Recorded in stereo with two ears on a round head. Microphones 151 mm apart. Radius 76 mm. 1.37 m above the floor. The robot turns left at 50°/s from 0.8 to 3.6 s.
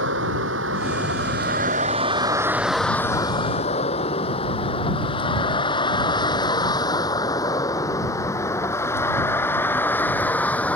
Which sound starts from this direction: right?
A vehicle, at 0.0 s.